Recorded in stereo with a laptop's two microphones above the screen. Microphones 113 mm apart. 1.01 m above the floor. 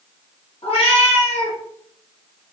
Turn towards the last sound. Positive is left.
turn(degrees=55)  # may be behind; listen again after turning